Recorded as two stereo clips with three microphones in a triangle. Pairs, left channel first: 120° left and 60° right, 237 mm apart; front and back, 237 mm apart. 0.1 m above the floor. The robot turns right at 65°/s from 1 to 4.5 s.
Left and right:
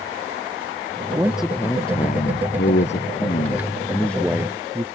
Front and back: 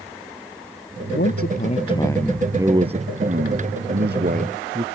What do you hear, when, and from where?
1.1 s a man speaking: 10° left; by 4.8 s 130° right